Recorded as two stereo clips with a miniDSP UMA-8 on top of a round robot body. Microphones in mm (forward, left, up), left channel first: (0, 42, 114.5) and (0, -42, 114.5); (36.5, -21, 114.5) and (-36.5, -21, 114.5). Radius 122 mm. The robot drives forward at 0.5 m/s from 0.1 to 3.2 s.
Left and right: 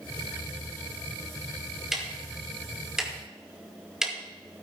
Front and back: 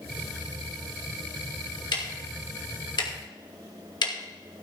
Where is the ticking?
5° right, 3 m.